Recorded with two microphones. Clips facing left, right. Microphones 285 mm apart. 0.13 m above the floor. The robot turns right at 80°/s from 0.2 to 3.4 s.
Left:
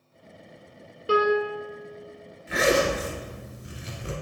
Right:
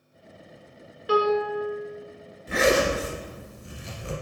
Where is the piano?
135° left, 0.6 m; by 1.7 s straight behind, 0.6 m.